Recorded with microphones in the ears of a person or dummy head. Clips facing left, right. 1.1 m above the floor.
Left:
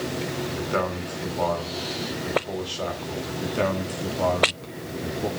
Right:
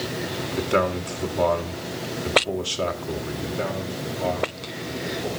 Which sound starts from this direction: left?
A man speaking, at 3.4 s.